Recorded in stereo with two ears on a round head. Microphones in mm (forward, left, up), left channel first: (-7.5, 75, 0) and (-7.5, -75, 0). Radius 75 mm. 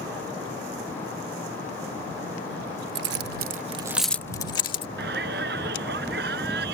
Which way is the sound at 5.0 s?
75° right (ahead or behind).